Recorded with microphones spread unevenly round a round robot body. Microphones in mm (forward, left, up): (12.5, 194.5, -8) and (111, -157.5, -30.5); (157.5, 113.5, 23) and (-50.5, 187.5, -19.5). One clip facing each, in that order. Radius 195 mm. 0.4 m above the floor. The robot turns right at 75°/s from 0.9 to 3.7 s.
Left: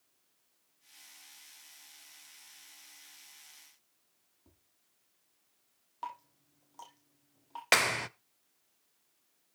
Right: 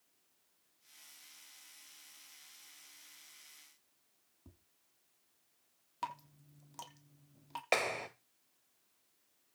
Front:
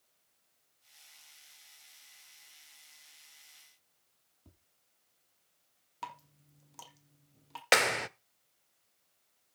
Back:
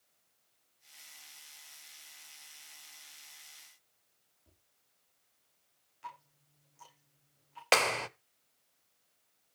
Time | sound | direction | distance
4.5 | tapping | 40° right | 4.5 m
6.0 | dripping | 35° right | 4 m
7.7 | a clap | 60° left | 1.0 m